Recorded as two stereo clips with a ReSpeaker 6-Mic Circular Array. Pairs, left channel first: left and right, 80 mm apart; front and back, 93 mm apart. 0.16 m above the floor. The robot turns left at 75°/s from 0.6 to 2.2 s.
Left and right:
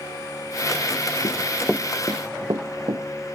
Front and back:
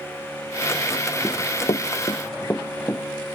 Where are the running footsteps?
80° left, 0.5 m; by 3.1 s 65° right, 1.5 m.